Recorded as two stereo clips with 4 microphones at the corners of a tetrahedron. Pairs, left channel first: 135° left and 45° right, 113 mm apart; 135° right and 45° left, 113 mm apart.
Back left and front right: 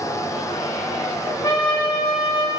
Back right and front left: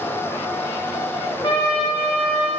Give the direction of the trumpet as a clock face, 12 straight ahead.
6 o'clock.